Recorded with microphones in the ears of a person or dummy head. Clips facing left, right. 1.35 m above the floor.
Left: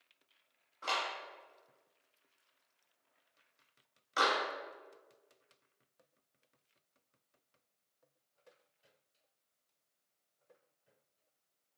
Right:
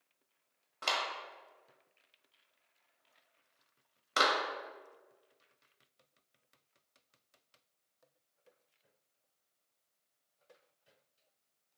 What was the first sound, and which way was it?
A clap, 75° right (ahead or behind).